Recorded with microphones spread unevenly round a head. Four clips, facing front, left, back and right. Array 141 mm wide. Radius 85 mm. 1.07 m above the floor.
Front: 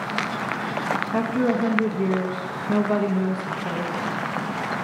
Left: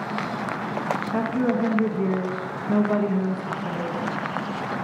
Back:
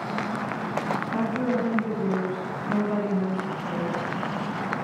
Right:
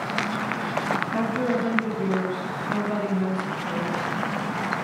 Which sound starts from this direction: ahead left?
A woman speaking, at 1.1 s.